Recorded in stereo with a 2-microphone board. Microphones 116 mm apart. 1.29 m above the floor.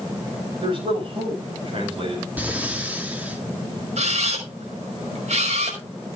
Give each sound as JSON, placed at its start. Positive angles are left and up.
{"t": 0.6, "sound": "a man speaking", "side_deg": -50, "distance_m": 8.0}
{"t": 2.4, "sound": "breathing", "side_deg": -15, "distance_m": 2.5}
{"t": 4.0, "sound": "a camera shutter", "side_deg": -75, "distance_m": 5.0}